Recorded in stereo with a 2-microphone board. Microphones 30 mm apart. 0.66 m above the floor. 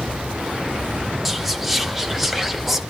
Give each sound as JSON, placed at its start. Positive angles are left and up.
{"t": 1.2, "sound": "whispering", "side_deg": -5, "distance_m": 0.6}